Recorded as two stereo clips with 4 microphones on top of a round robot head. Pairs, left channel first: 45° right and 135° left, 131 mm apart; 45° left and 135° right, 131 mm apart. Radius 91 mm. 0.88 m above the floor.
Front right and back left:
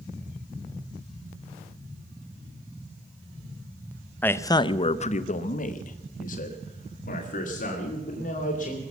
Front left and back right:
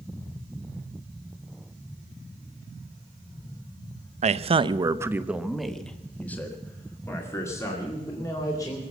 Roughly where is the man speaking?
Behind right.